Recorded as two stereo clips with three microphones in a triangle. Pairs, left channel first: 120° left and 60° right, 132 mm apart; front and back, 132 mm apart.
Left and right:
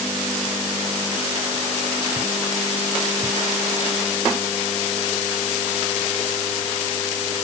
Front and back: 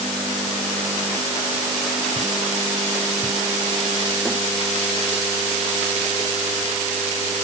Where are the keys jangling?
No keys jangling in this recording.